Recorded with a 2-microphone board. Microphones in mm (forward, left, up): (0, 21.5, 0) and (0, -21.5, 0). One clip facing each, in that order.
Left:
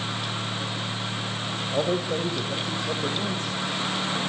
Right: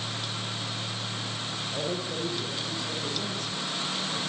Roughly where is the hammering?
I don't hear hammering.